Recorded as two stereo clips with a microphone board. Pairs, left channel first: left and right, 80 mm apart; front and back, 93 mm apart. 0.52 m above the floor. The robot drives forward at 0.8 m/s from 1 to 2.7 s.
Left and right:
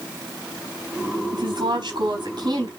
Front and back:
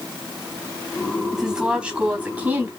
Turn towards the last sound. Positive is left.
turn(degrees=-110)